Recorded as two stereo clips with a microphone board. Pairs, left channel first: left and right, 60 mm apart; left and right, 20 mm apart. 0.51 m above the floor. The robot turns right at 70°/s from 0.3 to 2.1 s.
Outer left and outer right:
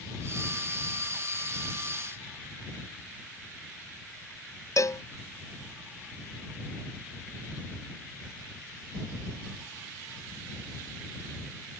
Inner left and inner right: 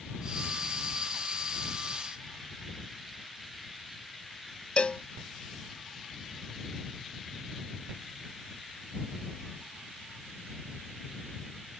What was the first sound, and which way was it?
A cowbell, 60° left (ahead or behind).